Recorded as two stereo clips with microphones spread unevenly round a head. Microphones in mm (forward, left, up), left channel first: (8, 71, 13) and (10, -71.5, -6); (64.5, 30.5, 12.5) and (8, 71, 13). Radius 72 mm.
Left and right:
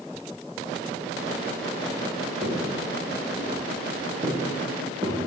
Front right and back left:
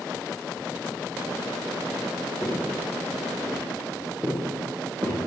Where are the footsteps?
115° right, 5.5 m; by 5.2 s 150° right, 5.5 m.